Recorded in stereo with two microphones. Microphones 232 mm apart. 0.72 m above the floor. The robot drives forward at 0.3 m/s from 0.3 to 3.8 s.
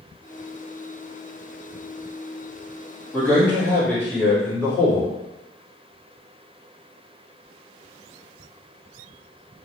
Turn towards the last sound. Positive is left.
turn(degrees=5)  # may be behind; listen again after turning